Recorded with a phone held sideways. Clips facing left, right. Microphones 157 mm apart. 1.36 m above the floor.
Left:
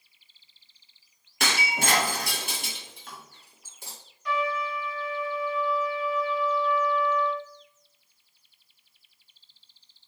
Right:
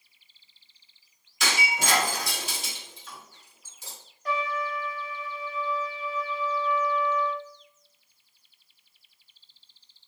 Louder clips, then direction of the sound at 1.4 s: Left 1 dB; 60° left (ahead or behind).